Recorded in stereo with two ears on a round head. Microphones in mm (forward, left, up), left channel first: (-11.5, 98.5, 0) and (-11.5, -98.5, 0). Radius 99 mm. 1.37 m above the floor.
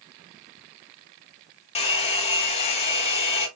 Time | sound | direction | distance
1.8 | a hair dryer | 30° left (ahead or behind) | 1.6 m